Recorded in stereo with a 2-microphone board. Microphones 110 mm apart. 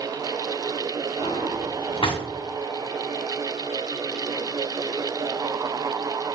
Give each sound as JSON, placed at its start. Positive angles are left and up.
{"t": 1.2, "sound": "a drawer", "side_deg": 55, "distance_m": 1.6}